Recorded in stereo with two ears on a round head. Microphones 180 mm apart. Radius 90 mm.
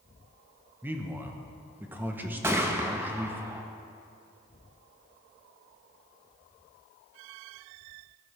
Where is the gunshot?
15° right (ahead or behind), 0.9 m.